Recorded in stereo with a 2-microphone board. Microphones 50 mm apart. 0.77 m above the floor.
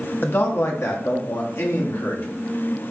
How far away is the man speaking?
About 0.7 m.